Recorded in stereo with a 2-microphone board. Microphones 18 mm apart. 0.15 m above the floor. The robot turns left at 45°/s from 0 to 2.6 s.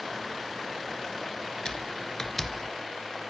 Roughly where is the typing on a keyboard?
Left.